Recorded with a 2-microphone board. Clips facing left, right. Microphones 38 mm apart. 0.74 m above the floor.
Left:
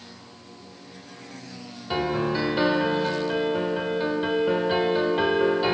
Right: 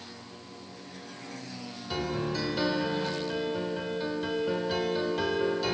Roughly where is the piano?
Left.